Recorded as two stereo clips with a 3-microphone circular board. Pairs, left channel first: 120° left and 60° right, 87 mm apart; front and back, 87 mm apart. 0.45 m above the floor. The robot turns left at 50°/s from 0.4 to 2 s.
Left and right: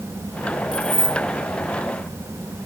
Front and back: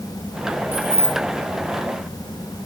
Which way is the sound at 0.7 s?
115° left.